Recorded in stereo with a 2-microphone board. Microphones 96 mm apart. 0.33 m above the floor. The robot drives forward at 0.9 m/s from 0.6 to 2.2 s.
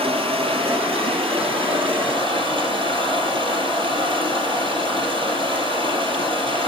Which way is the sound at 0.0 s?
85° right.